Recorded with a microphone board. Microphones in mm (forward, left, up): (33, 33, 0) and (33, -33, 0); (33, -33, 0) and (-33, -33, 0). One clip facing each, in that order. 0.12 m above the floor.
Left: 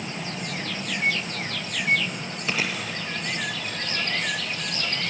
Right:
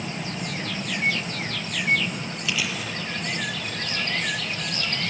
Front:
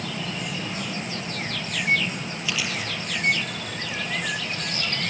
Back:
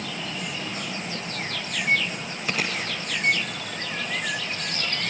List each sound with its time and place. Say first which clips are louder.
2.5 s chewing: left 2 dB, back 2 dB; 135° left, 1.9 m